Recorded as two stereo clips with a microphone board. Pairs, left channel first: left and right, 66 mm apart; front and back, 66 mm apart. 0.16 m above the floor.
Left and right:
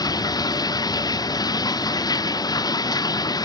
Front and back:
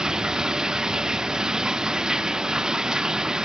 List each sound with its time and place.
0.0 s running water: 100° left